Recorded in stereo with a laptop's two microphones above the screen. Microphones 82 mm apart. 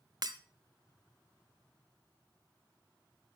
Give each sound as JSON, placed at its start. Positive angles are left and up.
{"t": 0.2, "sound": "breaking glass", "side_deg": -55, "distance_m": 1.0}